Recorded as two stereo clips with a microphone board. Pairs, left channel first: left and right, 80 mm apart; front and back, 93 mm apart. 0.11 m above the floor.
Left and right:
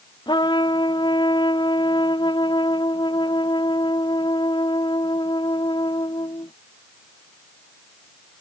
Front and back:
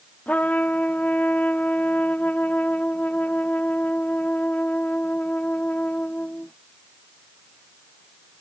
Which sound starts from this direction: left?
A trumpet, at 0.3 s.